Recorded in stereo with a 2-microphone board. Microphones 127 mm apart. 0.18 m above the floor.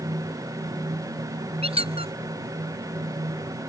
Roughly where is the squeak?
Right.